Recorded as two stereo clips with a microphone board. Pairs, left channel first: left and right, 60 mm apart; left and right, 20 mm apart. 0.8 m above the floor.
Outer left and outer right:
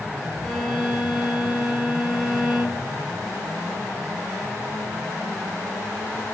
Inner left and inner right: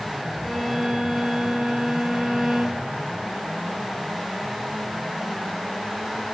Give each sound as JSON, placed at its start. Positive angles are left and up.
{"t": 0.4, "sound": "a violin", "side_deg": 0, "distance_m": 0.6}